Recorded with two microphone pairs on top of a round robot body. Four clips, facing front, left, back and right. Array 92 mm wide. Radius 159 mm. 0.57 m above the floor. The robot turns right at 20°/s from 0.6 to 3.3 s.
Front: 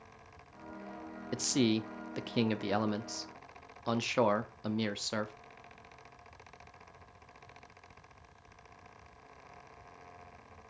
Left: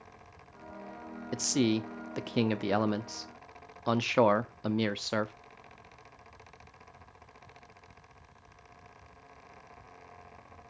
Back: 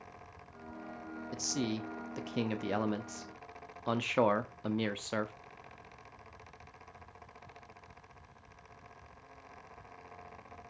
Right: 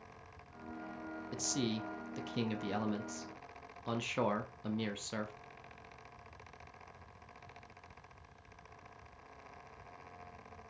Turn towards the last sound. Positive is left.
turn(degrees=100)